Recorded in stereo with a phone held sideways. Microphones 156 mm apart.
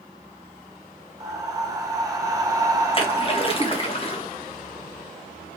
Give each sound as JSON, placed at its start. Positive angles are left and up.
{"t": 1.2, "sound": "breathing", "side_deg": -20, "distance_m": 0.6}
{"t": 2.9, "sound": "a splash", "side_deg": 35, "distance_m": 0.7}